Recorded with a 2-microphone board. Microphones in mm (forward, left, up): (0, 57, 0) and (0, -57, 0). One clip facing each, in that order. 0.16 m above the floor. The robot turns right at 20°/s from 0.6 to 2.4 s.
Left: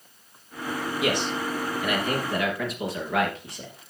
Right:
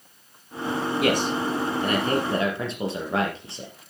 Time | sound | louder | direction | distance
1.0 | a man speaking | right 3 dB | 50° right (ahead or behind) | 3.5 m